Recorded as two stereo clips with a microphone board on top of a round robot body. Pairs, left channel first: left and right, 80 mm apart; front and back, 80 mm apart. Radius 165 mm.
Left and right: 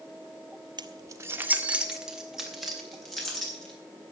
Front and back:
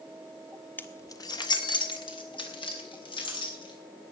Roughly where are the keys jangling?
Ahead right.